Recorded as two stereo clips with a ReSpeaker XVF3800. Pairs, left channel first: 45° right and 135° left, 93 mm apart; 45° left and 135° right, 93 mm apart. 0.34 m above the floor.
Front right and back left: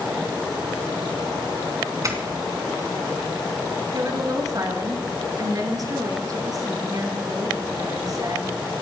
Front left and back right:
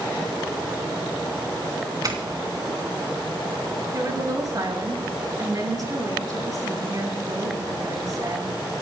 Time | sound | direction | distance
2.0 | a doorbell | 175° right | 4 m
3.9 | a woman speaking | straight behind | 5 m